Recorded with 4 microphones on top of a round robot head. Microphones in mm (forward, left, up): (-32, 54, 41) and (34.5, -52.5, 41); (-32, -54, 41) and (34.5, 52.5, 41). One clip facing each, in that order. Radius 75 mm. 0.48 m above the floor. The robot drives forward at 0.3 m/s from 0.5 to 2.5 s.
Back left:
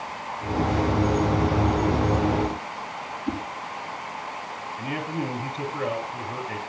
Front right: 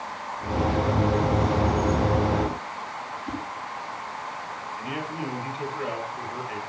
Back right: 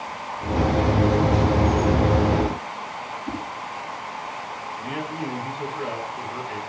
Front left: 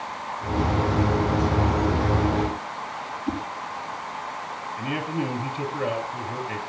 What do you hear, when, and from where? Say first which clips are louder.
3.3 s a whoosh: back left 5 dB, front left 4 dB; 145° left, 5.5 m
4.8 s a man speaking: back left 4 dB, front left 3 dB; 90° left, 5 m